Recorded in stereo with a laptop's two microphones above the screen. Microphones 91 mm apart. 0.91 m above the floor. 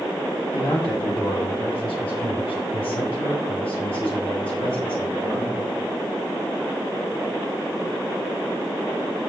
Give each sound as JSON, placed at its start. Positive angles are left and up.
{"t": 0.5, "sound": "a man speaking", "side_deg": 70, "distance_m": 5.0}